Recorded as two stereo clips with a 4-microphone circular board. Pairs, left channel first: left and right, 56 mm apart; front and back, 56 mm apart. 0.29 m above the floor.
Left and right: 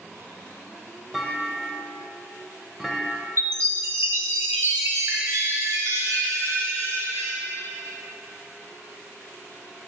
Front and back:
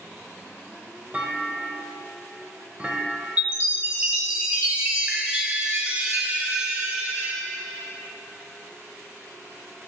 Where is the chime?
115° right, 1.2 m.